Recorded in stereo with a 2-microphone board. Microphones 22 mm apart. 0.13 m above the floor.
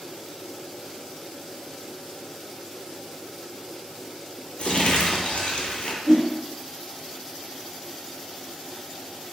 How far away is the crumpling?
About 0.5 m.